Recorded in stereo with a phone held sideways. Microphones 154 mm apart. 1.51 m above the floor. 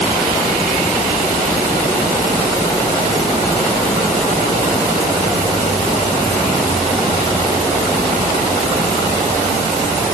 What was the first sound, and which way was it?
Only background noise.